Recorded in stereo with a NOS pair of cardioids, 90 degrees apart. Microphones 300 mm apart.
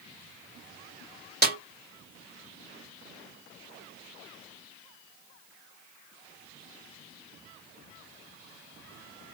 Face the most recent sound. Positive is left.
turn(degrees=-30)